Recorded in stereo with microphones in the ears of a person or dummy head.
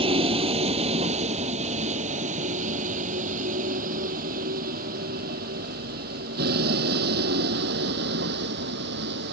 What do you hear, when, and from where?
0.0 s a vehicle: 30° right (ahead or behind); by 9.3 s 65° right (ahead or behind)